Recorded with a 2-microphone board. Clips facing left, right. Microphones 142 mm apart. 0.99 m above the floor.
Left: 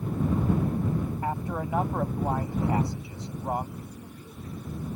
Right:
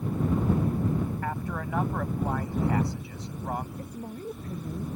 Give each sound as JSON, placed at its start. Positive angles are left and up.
{"t": 1.2, "sound": "a man speaking", "side_deg": 20}
{"t": 3.8, "sound": "a woman speaking", "side_deg": -50}